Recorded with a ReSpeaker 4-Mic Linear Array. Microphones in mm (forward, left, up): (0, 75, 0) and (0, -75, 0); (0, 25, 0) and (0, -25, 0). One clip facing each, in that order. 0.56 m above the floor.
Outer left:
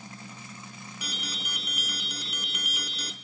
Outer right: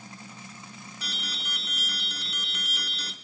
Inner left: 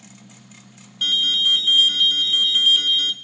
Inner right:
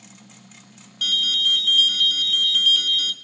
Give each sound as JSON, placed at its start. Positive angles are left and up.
{"t": 1.0, "sound": "an alarm", "side_deg": 10, "distance_m": 0.6}